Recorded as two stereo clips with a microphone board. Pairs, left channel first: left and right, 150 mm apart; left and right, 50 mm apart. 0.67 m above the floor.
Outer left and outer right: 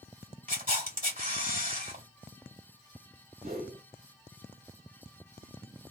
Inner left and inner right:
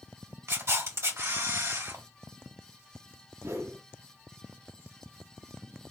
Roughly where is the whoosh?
Right.